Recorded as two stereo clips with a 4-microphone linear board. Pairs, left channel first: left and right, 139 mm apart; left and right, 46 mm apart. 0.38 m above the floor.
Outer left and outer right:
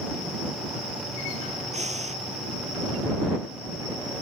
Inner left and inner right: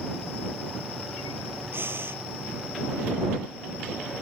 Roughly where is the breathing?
Right.